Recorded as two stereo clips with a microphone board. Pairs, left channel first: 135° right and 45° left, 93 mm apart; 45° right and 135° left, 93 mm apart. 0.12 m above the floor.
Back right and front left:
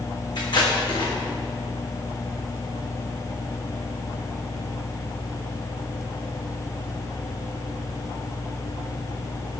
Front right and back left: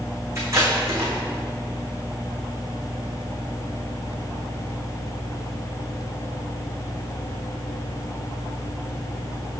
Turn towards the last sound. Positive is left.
turn(degrees=-165)